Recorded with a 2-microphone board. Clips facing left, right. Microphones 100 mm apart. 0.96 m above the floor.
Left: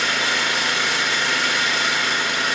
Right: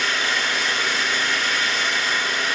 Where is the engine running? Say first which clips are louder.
Left 1 dB; 65° left (ahead or behind), 1.0 m.